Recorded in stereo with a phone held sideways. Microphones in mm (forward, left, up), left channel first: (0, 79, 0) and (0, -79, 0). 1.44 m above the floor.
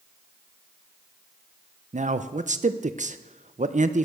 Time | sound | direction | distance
1.9 | a man speaking | 50° right (ahead or behind) | 0.6 m